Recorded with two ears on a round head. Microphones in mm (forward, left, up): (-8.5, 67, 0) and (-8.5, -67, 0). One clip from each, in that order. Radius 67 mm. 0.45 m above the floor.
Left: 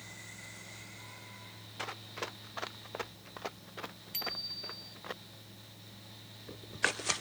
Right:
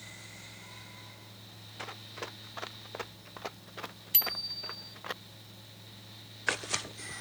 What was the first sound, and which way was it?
Running footsteps, 15° left (ahead or behind).